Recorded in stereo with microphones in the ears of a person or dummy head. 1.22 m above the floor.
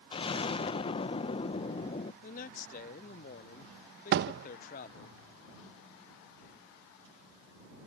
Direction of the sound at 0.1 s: 25° left (ahead or behind).